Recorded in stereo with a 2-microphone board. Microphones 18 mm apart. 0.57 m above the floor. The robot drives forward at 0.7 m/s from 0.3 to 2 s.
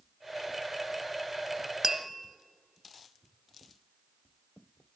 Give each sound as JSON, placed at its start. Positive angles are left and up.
{"t": 1.8, "sound": "tapping", "side_deg": -15, "distance_m": 0.6}